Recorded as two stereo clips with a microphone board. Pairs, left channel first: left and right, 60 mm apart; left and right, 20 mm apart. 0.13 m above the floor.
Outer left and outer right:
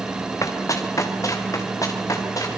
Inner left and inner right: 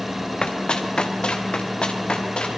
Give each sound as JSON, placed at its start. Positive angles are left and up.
{"t": 0.4, "sound": "running footsteps", "side_deg": 50, "distance_m": 2.5}